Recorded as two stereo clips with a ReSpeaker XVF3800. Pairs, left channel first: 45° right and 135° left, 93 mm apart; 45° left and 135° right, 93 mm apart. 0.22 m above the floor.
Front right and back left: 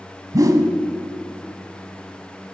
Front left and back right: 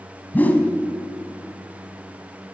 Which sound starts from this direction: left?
A whoosh, at 0.3 s.